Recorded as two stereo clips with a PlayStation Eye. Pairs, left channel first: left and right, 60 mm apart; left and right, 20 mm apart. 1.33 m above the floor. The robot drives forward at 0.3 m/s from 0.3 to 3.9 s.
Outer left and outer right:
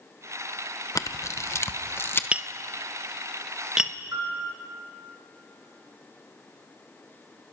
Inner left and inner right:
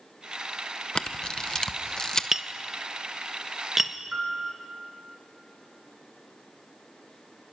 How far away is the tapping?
About 0.5 m.